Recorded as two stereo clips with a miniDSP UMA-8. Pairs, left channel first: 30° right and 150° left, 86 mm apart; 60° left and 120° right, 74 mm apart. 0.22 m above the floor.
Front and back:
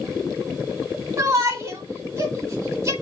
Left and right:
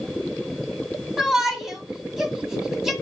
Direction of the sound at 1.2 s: 160° left.